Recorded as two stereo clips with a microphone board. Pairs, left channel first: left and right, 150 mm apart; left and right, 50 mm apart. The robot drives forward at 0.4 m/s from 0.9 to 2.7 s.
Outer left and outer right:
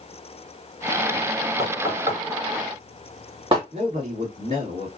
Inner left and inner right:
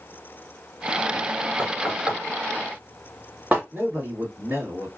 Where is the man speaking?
45° right (ahead or behind), 3.5 m.